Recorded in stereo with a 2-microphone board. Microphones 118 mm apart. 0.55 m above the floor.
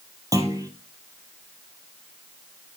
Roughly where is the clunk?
Right.